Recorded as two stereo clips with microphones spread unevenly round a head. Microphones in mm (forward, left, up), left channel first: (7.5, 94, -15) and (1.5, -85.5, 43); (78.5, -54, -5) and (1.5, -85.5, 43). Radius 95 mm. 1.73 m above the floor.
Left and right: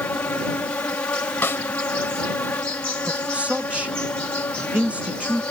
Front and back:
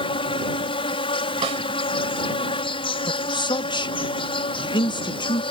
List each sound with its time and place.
0.0 s an insect: 5° left
1.4 s a snare drum: 170° left
3.1 s a man speaking: 10° right